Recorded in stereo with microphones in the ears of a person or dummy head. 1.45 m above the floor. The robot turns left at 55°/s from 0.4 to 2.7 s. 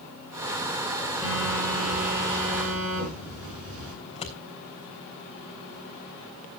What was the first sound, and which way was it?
A phone buzzing, straight ahead.